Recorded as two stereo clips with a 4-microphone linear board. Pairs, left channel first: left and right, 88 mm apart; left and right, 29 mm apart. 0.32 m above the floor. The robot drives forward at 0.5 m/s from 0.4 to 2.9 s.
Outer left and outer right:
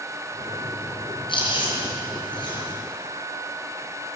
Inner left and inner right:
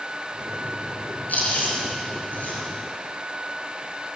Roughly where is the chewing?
Left.